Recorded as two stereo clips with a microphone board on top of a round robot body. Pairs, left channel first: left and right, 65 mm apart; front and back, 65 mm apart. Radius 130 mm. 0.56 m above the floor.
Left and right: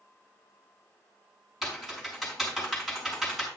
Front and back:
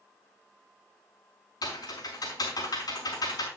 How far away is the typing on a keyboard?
About 4.5 m.